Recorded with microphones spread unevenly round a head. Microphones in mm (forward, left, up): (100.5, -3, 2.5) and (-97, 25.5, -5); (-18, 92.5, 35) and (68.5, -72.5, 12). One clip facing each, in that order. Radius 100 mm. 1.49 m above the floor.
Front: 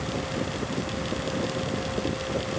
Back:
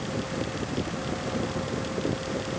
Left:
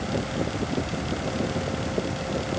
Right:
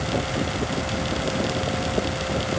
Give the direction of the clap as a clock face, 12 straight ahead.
I don't hear a clap.